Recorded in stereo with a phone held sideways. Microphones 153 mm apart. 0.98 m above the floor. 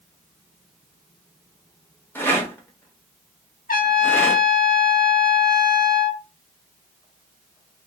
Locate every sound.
2.1 s a rattle: 15° left (ahead or behind), 0.7 m
3.7 s a trumpet: 70° left (ahead or behind), 0.8 m